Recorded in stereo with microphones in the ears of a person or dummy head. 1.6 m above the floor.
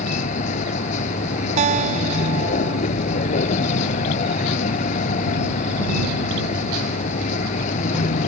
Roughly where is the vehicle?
Left.